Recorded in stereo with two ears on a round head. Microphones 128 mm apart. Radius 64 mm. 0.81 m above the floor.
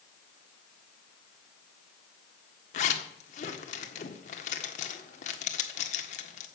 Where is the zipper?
50° left (ahead or behind), 1.5 m.